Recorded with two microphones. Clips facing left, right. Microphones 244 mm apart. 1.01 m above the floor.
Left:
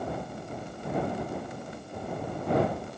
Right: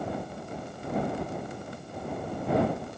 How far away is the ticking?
I don't hear ticking.